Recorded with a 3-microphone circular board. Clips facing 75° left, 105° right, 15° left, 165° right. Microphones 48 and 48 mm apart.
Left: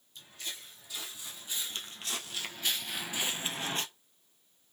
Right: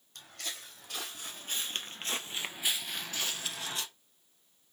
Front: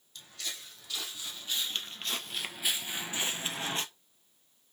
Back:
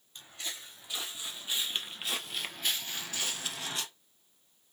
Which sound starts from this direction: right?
Footsteps, at 0.1 s.